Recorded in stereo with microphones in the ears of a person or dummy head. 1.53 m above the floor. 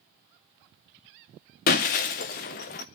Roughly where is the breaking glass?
Left.